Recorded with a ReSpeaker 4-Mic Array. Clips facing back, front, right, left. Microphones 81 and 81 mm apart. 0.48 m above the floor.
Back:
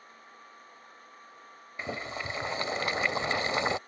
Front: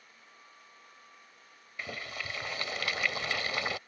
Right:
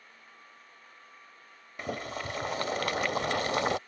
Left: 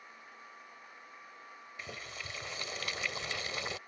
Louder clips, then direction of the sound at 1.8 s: Back 4 dB, right 11 dB; 120° right.